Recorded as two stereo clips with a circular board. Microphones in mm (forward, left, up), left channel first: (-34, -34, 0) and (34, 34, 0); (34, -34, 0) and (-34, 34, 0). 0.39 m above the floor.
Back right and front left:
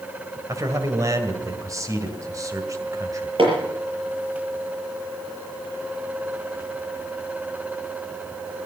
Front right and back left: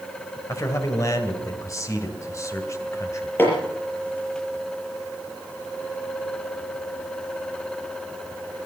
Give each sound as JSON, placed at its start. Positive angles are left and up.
{"t": 0.5, "sound": "a man speaking", "azimuth_deg": 0, "distance_m": 2.0}
{"t": 3.4, "sound": "hammering", "azimuth_deg": 25, "distance_m": 6.5}